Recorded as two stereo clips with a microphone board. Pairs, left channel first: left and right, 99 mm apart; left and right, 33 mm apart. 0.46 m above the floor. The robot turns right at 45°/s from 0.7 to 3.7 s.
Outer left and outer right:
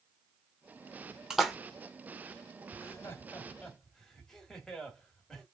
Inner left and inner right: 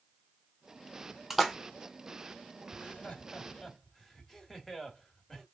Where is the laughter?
40° left (ahead or behind), 1.5 m; by 5.5 s 5° left (ahead or behind), 1.5 m.